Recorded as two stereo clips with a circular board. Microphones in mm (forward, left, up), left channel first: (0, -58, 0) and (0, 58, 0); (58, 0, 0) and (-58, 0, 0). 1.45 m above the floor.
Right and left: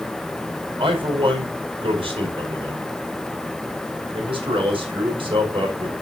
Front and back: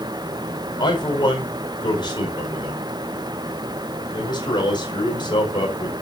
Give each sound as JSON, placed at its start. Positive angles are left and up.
{"t": 0.8, "sound": "a man speaking", "azimuth_deg": 50, "distance_m": 5.0}